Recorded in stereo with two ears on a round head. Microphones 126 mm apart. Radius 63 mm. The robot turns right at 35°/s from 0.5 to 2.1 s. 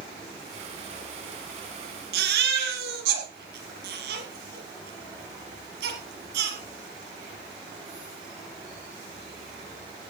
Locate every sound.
2.1 s a baby crying: 90° right, 6.5 m